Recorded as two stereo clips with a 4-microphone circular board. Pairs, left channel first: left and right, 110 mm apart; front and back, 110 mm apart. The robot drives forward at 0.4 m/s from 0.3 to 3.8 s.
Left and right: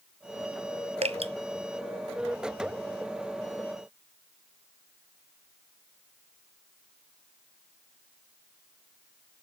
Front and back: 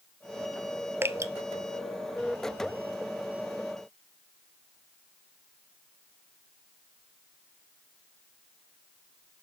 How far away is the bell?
No bell in this recording.